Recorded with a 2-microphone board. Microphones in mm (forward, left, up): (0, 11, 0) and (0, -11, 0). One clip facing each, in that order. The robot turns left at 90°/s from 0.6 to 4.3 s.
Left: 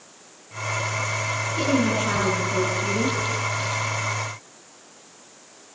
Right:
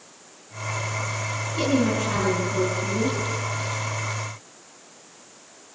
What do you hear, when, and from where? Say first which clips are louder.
1.6 s a woman speaking: even; 170° right, 7.5 m; by 3.2 s 45° left, 7.5 m